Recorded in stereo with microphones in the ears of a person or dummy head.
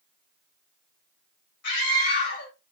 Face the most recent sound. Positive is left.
turn(degrees=55)  # may be behind; listen again after turning